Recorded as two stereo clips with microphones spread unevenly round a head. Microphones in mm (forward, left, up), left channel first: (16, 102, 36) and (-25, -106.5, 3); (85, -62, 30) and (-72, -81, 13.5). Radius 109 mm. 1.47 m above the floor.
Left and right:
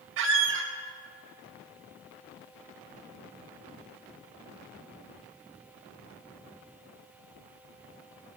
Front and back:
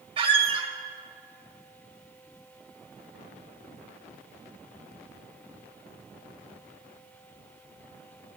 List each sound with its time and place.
0.2 s a squeak: 120° right, 1.2 m